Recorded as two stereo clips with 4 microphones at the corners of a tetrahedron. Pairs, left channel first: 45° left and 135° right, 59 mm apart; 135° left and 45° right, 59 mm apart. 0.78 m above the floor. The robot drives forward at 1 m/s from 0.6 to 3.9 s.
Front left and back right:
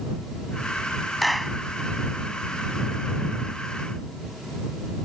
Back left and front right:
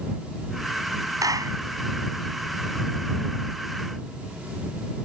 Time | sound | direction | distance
1.2 | a clap | 45° right | ?